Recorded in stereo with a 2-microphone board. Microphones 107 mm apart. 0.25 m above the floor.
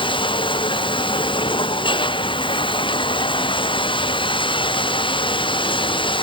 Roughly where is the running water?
Left.